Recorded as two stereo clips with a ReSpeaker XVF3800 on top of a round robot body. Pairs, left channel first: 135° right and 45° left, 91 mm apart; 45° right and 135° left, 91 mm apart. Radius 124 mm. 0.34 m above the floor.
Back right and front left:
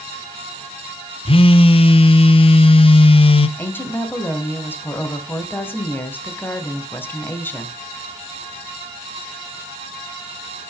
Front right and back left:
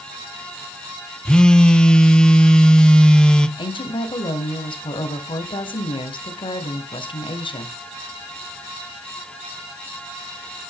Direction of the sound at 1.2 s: 125° right.